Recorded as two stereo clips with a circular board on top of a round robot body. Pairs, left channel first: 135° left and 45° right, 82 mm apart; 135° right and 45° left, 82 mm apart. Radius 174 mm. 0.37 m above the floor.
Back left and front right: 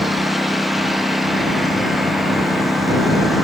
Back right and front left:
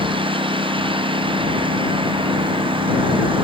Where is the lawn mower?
45° left.